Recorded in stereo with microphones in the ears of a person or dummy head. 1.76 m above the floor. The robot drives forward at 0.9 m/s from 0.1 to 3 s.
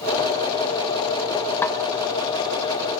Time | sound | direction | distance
1.6 | a snare drum | 10° left (ahead or behind) | 1.1 m